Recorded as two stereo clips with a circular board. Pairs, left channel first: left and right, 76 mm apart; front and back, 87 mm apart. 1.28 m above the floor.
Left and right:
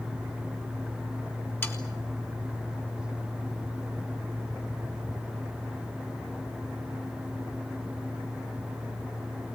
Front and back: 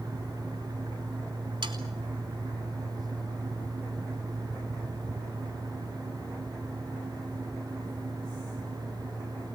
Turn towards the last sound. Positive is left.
turn(degrees=150)